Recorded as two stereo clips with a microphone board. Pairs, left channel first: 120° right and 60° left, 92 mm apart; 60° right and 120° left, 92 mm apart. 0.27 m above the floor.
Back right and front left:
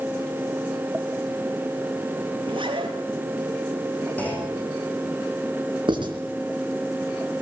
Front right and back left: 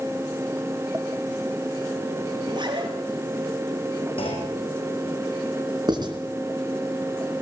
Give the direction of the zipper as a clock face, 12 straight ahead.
9 o'clock.